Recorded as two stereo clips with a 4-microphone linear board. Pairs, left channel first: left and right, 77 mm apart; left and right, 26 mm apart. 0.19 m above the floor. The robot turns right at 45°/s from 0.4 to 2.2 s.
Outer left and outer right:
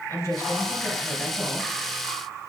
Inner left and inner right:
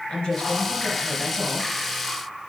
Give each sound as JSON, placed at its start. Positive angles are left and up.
{"t": 0.1, "sound": "a woman speaking", "azimuth_deg": 135, "distance_m": 3.0}